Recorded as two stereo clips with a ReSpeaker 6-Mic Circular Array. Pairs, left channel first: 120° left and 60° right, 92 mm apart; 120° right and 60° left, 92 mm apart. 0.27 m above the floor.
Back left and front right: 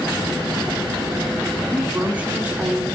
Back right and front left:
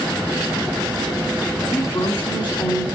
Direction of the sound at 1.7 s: 130° right.